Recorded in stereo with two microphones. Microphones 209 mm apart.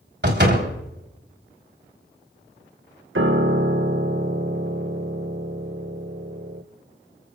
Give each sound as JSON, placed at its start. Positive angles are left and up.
{"t": 0.2, "sound": "a door slam", "side_deg": -55, "distance_m": 3.5}
{"t": 3.1, "sound": "a piano", "side_deg": -70, "distance_m": 1.1}